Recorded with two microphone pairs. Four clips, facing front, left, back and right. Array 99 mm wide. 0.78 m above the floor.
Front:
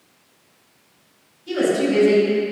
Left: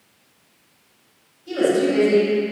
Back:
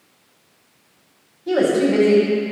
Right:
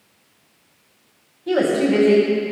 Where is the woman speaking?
135° right, 4.5 m.